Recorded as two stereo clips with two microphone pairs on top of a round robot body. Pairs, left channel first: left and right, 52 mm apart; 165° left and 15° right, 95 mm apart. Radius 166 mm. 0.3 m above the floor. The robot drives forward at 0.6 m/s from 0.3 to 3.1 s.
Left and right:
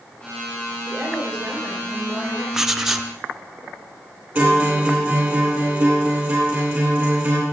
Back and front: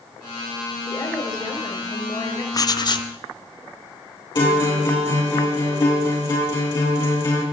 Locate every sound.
0.9 s a woman speaking: 150° right, 6 m; by 2.4 s 155° right, 6.5 m
2.5 s writing: 160° right, 0.8 m; by 3.1 s 170° right, 1.1 m
4.3 s a guitar: 155° right, 8 m